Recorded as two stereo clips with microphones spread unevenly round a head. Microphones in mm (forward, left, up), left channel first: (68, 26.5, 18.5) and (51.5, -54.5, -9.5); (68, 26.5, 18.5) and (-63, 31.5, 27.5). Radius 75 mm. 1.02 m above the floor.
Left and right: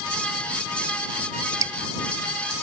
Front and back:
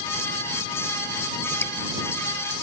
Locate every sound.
1.6 s dripping: 70° right